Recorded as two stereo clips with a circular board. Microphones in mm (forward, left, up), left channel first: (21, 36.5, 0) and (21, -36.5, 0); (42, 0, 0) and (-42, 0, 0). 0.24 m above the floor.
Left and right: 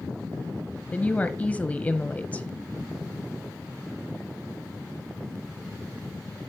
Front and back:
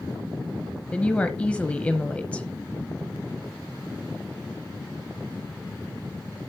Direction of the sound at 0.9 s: 55° left.